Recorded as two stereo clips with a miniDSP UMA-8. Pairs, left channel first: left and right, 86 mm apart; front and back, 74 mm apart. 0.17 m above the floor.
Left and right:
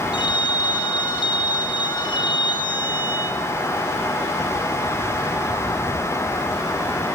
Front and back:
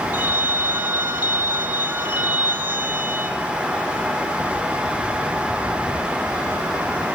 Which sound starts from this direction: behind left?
A phone ringing, at 0.1 s.